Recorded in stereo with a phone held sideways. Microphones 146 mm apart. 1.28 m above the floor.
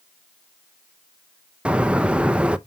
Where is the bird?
5° right (ahead or behind), 0.6 m.